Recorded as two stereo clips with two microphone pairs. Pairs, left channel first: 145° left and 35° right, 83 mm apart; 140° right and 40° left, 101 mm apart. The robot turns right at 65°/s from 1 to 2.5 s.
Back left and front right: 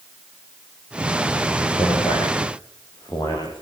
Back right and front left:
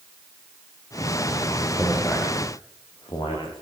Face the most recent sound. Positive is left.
turn(degrees=180)